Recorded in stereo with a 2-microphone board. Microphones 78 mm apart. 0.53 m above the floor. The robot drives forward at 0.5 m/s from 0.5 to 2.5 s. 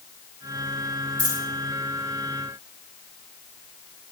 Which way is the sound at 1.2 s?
75° right (ahead or behind).